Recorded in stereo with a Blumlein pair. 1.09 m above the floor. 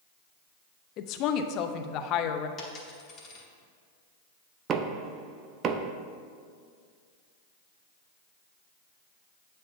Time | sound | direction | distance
1.0 | a woman speaking | 35° left | 0.7 m
2.6 | a dropped coin | 20° left | 1.9 m
4.7 | knocking | 30° right | 0.5 m